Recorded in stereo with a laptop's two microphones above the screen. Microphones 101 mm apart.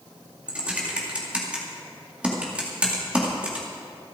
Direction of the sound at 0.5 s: 10° right (ahead or behind).